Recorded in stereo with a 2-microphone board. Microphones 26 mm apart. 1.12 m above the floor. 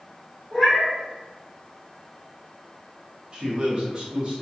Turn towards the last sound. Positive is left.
turn(degrees=-35)  # may be behind; listen again after turning